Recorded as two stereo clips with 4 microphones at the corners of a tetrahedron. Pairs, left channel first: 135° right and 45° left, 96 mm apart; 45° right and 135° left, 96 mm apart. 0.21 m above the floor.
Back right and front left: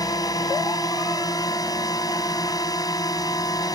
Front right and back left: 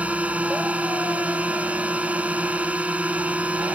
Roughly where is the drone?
Behind right.